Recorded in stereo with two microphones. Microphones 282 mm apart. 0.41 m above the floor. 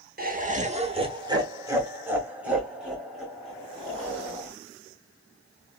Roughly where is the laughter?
Right.